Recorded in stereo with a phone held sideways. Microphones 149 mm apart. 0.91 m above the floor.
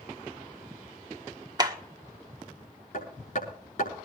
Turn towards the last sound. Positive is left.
turn(degrees=55)  # may be behind; listen again after turning